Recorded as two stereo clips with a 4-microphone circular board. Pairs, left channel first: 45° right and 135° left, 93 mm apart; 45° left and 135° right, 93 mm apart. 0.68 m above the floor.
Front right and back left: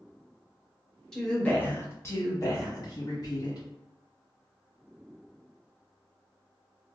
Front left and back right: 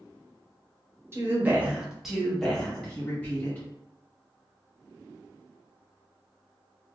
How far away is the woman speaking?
About 0.8 m.